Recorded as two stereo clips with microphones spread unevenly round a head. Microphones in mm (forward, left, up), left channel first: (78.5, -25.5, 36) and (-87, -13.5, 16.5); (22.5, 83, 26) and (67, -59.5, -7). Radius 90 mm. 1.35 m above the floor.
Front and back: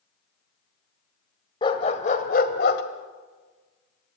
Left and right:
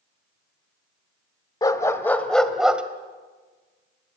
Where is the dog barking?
55° left, 1.9 m; by 2.8 s 15° left, 2 m.